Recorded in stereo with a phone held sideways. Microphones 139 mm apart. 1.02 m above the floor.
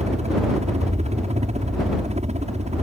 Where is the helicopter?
50° right (ahead or behind).